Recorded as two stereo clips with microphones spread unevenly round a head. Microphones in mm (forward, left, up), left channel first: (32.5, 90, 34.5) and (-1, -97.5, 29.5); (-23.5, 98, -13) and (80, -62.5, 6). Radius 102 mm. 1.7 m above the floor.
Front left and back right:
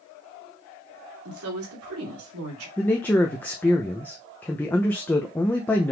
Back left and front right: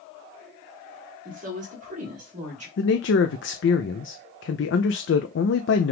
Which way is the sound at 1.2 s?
110° right.